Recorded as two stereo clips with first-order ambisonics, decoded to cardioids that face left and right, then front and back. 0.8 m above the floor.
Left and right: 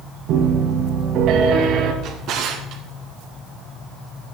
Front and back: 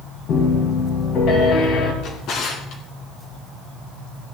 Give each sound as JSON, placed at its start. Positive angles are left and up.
{"t": 0.3, "sound": "a piano", "azimuth_deg": -45, "distance_m": 2.5}
{"t": 2.0, "sound": "a drawer", "azimuth_deg": -45, "distance_m": 2.0}